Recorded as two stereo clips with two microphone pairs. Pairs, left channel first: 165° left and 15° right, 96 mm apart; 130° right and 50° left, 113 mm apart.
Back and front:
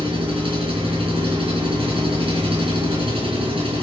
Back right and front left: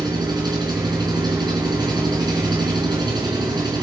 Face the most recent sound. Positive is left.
turn(degrees=0)